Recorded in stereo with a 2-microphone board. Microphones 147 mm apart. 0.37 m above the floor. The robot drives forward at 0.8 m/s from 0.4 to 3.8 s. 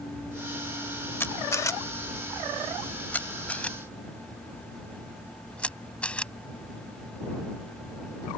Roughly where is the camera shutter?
Centre.